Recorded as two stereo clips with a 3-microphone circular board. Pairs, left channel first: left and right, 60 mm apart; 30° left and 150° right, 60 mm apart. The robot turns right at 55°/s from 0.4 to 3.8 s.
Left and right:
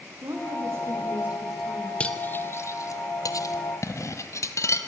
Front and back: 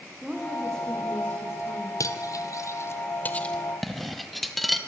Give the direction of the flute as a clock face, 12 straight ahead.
No flute in this recording.